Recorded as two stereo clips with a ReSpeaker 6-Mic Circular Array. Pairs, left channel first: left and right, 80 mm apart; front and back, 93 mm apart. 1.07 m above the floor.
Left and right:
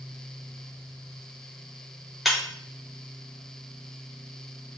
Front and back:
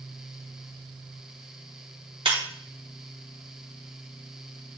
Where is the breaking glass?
Straight behind, 1.9 m.